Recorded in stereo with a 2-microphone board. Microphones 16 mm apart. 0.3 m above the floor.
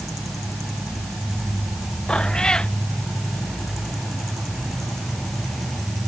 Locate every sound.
2.1 s a cat meowing: 70° left (ahead or behind)